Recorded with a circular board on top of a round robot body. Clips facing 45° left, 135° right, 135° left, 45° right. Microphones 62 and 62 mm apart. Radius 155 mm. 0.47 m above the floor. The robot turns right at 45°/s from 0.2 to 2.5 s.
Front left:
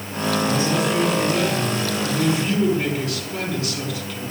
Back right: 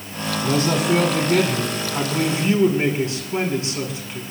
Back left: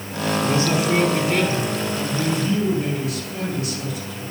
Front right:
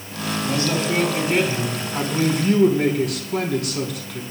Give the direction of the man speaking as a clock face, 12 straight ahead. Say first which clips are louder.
Back right 4 dB, back left 1 dB; 5 o'clock.